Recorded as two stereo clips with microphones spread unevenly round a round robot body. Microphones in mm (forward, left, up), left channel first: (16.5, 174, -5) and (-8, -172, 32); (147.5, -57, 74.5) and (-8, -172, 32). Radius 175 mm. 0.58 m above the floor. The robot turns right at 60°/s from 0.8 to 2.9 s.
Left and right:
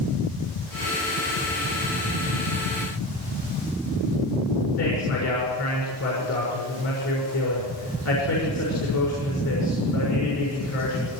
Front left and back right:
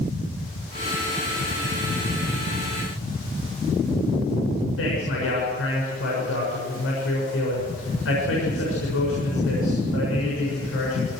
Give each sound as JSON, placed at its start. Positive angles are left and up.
{"t": 4.8, "sound": "a man speaking", "azimuth_deg": 40, "distance_m": 6.5}